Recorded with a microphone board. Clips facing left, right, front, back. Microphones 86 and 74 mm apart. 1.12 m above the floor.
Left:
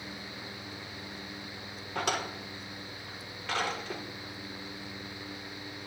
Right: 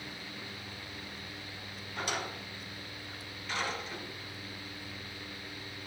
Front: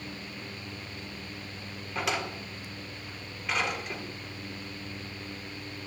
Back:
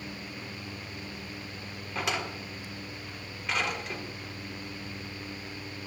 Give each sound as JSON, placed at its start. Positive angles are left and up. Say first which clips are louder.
{"t": 1.9, "sound": "a drawer", "louder": "left 4 dB, front 1 dB", "azimuth_deg": 90, "distance_m": 1.6}